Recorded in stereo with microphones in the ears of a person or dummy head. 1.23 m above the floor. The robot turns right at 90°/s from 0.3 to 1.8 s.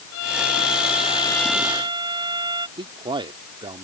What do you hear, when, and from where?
0.1 s a violin: 60° left; by 2.7 s 165° right
2.8 s a man speaking: 15° right (ahead or behind)